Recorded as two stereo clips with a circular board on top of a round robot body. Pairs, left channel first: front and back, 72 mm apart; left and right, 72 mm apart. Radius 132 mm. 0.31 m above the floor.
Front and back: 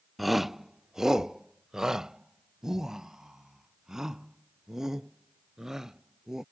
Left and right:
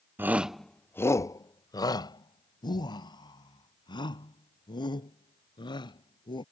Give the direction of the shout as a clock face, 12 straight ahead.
3 o'clock.